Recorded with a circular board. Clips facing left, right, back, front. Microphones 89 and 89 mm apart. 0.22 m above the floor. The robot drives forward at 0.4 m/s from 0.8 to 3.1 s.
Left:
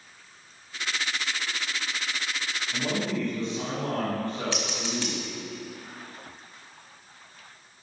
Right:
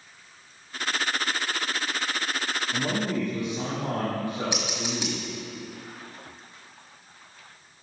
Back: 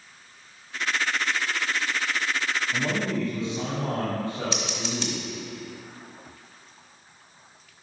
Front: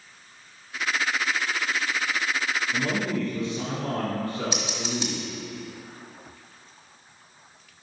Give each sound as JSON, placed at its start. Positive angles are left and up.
{"t": 2.7, "sound": "a man speaking", "azimuth_deg": -145, "distance_m": 1.4}
{"t": 4.5, "sound": "scissors", "azimuth_deg": -50, "distance_m": 1.6}